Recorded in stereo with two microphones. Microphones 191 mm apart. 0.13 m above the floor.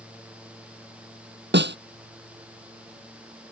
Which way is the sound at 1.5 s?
65° right (ahead or behind).